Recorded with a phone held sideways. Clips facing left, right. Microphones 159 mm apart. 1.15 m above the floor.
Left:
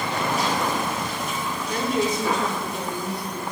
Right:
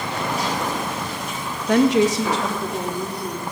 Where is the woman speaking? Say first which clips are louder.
Right 9 dB; 70° right (ahead or behind), 0.7 m; by 3.5 s 75° right (ahead or behind), 3.5 m.